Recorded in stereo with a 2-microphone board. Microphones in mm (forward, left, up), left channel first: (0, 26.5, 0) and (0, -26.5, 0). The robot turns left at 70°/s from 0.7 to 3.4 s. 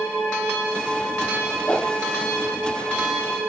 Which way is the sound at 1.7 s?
25° left (ahead or behind).